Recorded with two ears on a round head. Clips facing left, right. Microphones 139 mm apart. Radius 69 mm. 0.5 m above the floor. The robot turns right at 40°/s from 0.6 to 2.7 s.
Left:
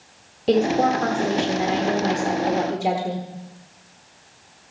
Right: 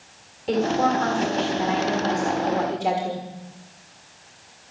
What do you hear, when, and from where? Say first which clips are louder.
0.5 s a woman speaking: left 3 dB; 85° left, 1.4 m; by 3.2 s 165° left, 1.4 m